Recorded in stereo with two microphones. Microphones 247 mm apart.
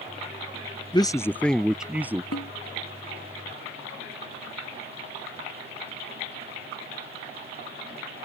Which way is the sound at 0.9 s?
20° left (ahead or behind).